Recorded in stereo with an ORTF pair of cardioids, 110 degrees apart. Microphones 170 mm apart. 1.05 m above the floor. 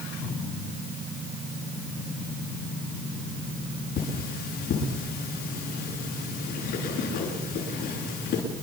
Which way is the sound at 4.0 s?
70° left.